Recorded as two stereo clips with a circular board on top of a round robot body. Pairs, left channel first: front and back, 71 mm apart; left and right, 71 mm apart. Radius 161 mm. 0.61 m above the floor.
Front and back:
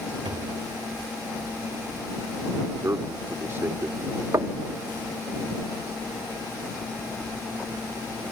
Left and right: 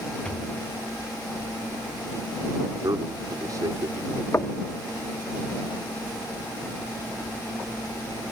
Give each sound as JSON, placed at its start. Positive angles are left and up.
{"t": 0.2, "sound": "a thud", "azimuth_deg": 165}
{"t": 2.8, "sound": "a man speaking", "azimuth_deg": -125}
{"t": 4.3, "sound": "knocking", "azimuth_deg": 140}